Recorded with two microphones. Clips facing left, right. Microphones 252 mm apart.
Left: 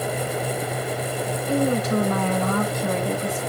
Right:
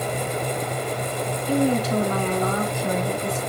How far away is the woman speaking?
About 3 m.